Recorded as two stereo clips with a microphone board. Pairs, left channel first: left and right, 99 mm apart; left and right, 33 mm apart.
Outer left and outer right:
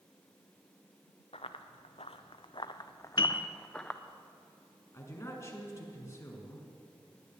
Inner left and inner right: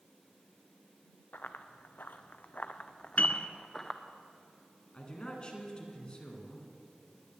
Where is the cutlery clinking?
No cutlery clinking in this recording.